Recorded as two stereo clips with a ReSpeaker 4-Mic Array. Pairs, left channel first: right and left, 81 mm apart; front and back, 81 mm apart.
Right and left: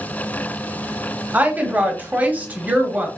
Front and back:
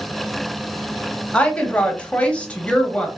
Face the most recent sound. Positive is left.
turn(degrees=50)